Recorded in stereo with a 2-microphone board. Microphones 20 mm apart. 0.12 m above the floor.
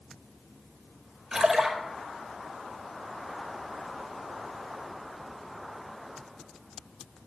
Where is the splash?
30° right (ahead or behind), 1.9 m.